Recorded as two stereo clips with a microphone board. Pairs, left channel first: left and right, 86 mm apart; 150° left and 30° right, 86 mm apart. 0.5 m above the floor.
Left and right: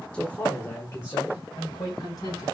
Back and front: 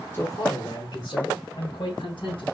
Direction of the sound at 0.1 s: 150° left.